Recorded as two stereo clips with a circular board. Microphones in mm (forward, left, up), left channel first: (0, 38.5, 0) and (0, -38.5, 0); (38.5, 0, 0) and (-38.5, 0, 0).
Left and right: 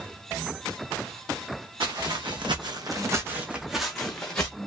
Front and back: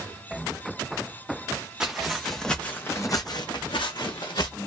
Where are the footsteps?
100° right, 1.0 m; by 4.6 s 15° left, 1.1 m.